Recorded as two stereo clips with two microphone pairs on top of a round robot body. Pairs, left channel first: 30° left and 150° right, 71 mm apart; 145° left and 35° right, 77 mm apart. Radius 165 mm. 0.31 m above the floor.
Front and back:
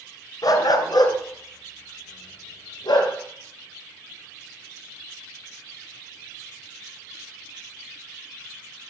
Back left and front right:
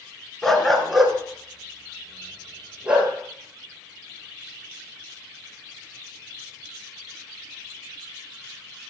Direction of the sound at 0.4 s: 60° left.